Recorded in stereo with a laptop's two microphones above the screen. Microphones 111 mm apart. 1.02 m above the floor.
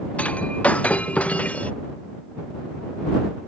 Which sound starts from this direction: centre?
Breaking glass, at 0.2 s.